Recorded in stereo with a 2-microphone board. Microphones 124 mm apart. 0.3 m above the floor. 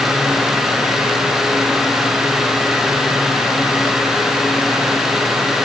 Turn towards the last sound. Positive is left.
No sound to turn to.